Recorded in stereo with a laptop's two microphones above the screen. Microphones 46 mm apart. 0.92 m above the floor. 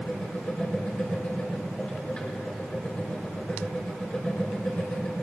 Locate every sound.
0.0 s a machine running: 25° left (ahead or behind), 3 m